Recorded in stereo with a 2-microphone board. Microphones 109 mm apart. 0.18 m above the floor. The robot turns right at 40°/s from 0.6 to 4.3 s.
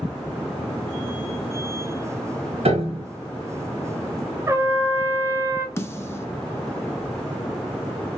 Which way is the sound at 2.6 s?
65° right (ahead or behind).